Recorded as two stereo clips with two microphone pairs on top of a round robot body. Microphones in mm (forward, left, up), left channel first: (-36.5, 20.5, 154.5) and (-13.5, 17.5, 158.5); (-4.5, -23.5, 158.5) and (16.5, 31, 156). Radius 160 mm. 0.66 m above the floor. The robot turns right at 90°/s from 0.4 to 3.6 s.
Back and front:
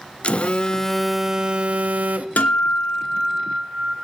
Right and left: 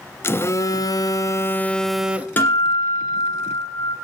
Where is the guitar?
170° right, 1.8 m; by 4.0 s 60° right, 1.8 m.